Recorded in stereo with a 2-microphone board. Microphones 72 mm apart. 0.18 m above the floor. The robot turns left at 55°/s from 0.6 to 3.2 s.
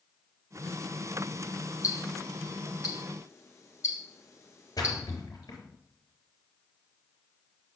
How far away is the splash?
About 3.5 m.